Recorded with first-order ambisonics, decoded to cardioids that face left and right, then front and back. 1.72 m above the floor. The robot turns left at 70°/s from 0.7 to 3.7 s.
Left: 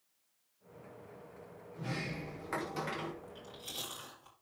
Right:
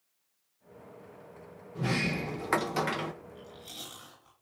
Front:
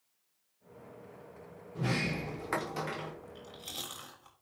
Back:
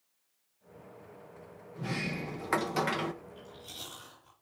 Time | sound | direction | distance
1.8 | a sliding door | 55° right | 0.8 m
3.2 | chewing | 45° left | 6.5 m